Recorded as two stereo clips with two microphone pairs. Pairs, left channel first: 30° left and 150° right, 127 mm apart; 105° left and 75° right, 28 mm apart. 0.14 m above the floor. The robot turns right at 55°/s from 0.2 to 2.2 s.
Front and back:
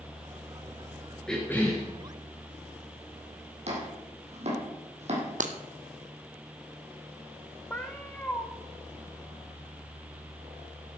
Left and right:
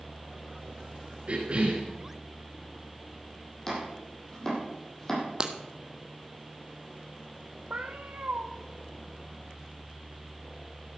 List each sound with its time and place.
1.3 s a cough: 60° right, 1.7 m; by 1.9 s 25° right, 1.7 m
3.7 s chopping: straight behind, 4.5 m
5.4 s breaking glass: 140° right, 1.2 m
7.7 s a cat meowing: 50° right, 1.6 m